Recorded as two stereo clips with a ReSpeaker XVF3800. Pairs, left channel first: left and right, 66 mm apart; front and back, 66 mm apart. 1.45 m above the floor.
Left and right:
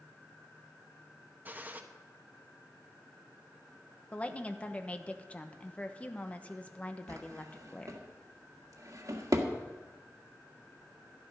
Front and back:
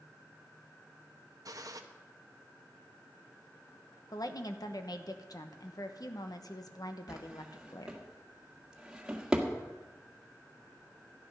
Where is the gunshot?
150° right, 1.0 m.